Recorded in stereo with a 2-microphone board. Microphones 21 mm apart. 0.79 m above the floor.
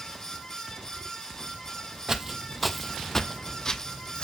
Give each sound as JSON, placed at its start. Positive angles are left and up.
{"t": 2.1, "sound": "footsteps", "side_deg": -20, "distance_m": 1.0}